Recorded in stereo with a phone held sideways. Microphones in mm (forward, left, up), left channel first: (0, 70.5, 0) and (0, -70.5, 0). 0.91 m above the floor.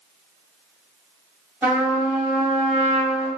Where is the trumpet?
20° right (ahead or behind), 1.5 m.